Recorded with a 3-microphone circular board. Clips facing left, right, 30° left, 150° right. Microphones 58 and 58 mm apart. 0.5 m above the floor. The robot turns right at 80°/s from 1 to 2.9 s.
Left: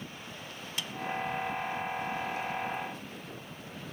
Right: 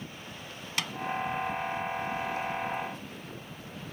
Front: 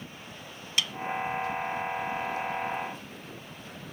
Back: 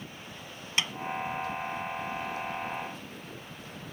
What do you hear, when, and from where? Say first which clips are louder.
0.8 s a snare drum: right 6 dB, even; 90° right